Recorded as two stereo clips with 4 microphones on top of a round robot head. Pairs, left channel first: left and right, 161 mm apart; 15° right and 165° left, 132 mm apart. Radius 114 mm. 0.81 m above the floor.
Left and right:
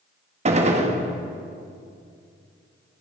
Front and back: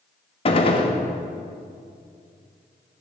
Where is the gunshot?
50° right, 1.7 m.